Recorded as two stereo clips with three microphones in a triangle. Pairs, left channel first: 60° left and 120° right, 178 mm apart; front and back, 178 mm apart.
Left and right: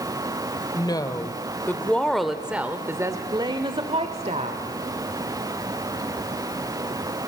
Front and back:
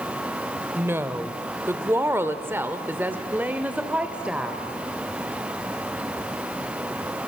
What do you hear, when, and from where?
0.8 s a woman speaking: 110° left, 1.8 m; by 4.6 s 100° right, 1.9 m